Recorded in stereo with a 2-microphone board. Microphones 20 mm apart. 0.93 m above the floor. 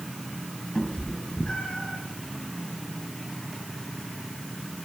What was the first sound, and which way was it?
A cat meowing, 40° left (ahead or behind).